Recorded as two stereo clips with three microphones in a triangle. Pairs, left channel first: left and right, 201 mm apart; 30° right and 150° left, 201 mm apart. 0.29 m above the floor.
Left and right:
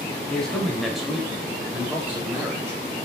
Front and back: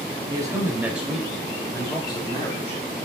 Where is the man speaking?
165° left, 1.5 m; by 2.8 s 25° right, 1.6 m.